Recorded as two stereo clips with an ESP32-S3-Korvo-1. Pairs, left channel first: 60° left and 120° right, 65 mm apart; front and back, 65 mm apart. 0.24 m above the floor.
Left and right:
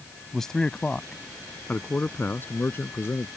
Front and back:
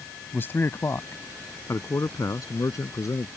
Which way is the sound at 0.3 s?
20° right.